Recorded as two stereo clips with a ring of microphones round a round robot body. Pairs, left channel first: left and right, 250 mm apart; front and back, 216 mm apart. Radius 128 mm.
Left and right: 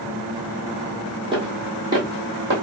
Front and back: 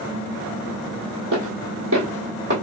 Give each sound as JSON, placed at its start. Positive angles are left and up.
{"t": 1.3, "sound": "footsteps", "azimuth_deg": -160, "distance_m": 1.6}